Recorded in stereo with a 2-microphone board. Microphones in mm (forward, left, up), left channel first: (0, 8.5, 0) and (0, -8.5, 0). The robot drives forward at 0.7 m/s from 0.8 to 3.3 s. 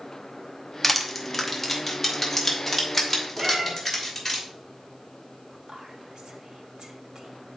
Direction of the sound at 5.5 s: 50° right (ahead or behind).